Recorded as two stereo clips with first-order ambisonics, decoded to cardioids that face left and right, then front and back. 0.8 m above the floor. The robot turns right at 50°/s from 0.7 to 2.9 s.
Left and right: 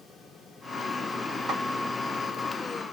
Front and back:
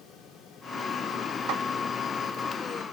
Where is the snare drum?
155° right, 0.7 m; by 1.6 s 150° right, 0.7 m.